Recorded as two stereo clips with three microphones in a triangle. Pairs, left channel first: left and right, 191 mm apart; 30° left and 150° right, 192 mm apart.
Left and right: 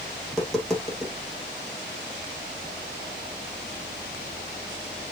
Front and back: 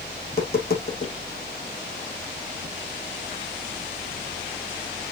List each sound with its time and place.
0.2 s tapping: straight ahead, 3 m